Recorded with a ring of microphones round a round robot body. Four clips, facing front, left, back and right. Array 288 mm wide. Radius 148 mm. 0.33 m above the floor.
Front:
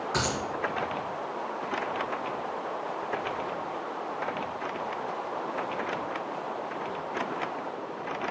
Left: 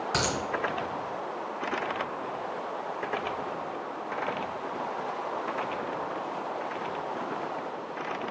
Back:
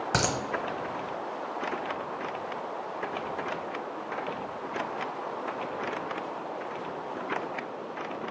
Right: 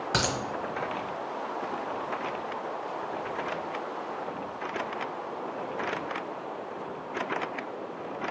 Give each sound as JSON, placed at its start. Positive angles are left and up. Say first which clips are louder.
{"t": 0.1, "sound": "a dropped coin", "louder": "right 1 dB, back 2 dB", "azimuth_deg": -165, "distance_m": 1.1}